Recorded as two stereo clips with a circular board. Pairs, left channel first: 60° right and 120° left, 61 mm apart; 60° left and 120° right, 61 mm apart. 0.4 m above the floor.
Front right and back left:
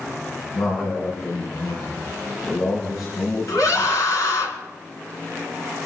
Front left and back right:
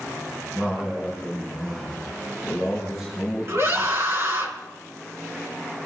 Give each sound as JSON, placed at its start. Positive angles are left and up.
{"t": 0.6, "sound": "a man speaking", "azimuth_deg": -40, "distance_m": 5.0}
{"t": 3.5, "sound": "a scream", "azimuth_deg": -75, "distance_m": 3.5}